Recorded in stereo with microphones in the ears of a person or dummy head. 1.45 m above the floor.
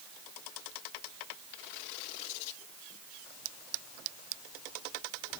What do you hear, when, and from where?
Only background noise.